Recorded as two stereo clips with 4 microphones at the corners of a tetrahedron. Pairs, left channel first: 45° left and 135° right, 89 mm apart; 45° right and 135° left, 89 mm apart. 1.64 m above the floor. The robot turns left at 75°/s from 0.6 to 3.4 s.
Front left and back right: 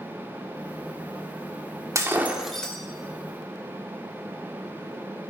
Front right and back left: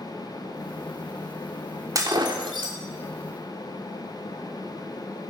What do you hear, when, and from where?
1.9 s breaking glass: straight behind, 2.5 m; by 2.8 s 115° left, 2.5 m